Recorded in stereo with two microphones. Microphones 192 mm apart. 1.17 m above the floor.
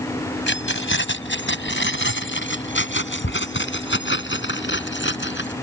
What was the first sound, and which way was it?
Keys jangling, 85° left.